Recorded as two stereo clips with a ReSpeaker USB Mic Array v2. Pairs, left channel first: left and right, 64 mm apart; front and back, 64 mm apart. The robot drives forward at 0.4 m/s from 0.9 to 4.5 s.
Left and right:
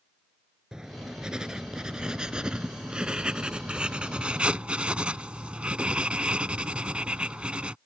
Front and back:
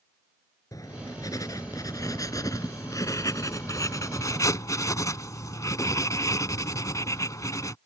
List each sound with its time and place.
0.7 s writing: 10° right; by 7.8 s 20° right